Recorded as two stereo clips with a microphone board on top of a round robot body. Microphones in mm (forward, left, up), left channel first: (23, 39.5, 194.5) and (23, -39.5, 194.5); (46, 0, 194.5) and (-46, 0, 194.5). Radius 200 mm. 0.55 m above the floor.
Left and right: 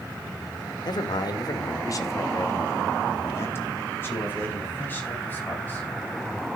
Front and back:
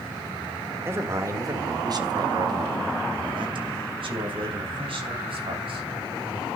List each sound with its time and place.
0.8 s a man speaking: 115° left, 2 m; by 5.9 s 160° left, 5.5 m